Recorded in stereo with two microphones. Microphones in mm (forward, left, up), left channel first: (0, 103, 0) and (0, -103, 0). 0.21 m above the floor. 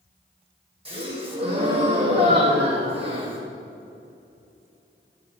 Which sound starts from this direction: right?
A gasp, at 0.8 s.